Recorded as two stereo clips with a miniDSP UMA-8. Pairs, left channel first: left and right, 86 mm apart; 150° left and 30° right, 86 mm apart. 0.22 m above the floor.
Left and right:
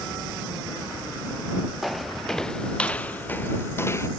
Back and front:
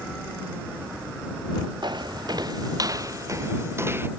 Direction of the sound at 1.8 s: Straight ahead.